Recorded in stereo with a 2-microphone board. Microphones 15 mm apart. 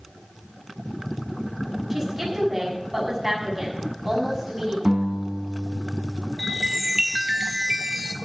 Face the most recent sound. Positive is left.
turn(degrees=-45)  # may be behind; listen again after turning